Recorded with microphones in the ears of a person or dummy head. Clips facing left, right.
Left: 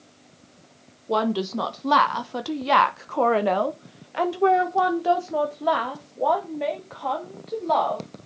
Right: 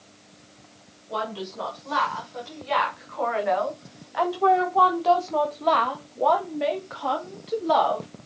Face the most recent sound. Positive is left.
turn(degrees=0)  # may be behind; listen again after turning